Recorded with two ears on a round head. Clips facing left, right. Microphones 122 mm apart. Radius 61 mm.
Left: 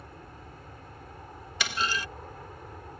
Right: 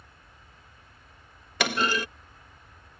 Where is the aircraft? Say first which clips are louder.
Left 10 dB; 40° left (ahead or behind).